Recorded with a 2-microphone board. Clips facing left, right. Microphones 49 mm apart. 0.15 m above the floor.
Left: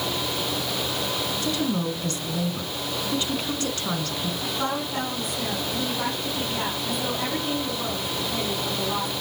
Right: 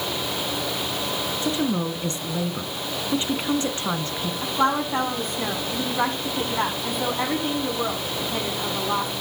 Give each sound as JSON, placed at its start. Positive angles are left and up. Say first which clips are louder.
{"t": 1.4, "sound": "a woman speaking", "louder": "right 2 dB", "side_deg": -25, "distance_m": 1.6}
{"t": 4.4, "sound": "a woman speaking", "louder": "right 8 dB", "side_deg": -40, "distance_m": 6.0}